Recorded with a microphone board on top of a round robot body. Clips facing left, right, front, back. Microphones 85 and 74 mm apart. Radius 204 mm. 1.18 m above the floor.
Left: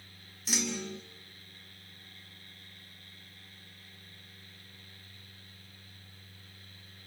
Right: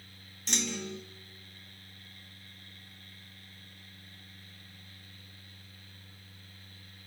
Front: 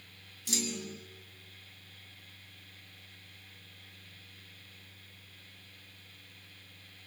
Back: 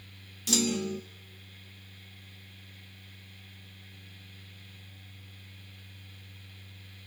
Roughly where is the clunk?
Behind.